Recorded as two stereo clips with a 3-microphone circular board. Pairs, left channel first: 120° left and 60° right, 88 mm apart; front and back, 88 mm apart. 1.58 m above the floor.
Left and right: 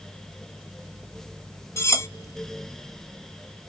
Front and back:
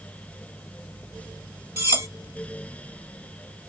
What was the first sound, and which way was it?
Cutlery clinking, 145° left.